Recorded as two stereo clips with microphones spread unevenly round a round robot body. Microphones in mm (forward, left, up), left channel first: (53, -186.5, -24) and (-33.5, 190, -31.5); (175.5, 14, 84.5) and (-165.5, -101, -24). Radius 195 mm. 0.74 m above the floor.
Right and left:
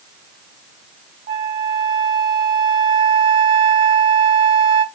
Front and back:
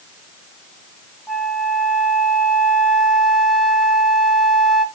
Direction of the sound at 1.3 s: 105° left.